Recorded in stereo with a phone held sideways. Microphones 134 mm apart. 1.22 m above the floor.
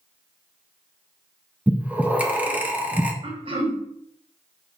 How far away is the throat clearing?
About 1.1 m.